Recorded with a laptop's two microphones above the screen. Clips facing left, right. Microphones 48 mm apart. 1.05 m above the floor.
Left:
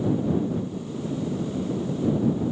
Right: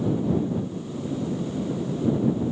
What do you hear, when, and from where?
Only background noise.